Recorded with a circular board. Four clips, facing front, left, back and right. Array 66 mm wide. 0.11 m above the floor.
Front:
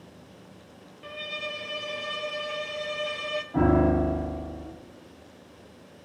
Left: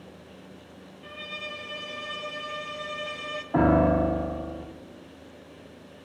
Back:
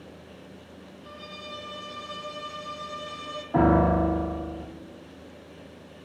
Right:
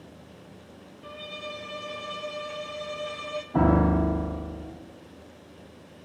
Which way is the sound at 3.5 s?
125° left.